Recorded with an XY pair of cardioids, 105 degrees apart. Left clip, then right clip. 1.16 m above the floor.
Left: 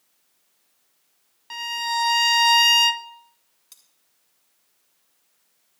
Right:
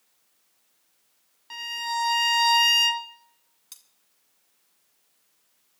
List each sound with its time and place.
1.5 s a violin: 25° left, 0.9 m
3.7 s cutlery clinking: 30° right, 2 m